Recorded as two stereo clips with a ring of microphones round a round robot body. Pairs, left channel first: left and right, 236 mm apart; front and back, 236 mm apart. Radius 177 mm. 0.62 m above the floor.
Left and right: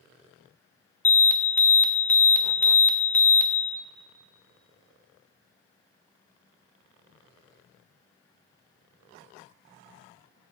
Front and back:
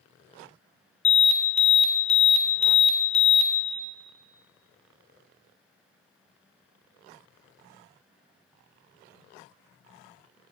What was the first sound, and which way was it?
An alarm, 15° left.